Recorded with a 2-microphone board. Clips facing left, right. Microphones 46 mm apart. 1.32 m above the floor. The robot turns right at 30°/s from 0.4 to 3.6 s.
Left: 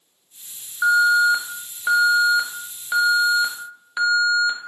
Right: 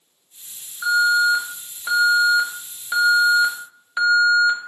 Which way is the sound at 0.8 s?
100° left.